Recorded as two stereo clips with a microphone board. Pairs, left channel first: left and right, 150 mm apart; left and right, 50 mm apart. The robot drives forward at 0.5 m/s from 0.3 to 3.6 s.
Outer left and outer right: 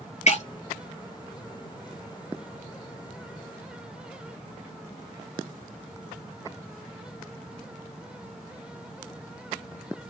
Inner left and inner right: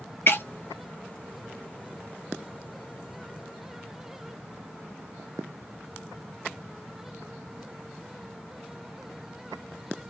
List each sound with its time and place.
0.3 s breaking glass: 50° left (ahead or behind), 1.4 m